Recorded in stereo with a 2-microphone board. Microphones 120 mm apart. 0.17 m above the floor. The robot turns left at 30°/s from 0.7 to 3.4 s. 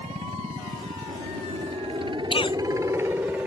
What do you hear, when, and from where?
0.0 s a helicopter: 85° right; by 3.5 s 170° right
2.3 s a cough: 50° left (ahead or behind); by 2.6 s 40° left (ahead or behind)